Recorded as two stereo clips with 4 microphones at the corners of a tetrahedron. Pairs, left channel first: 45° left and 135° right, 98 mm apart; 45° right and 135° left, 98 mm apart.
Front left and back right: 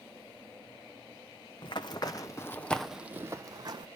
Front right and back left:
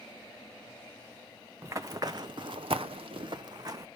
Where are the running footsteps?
75° left, 0.9 m; by 3.9 s 175° right, 0.8 m.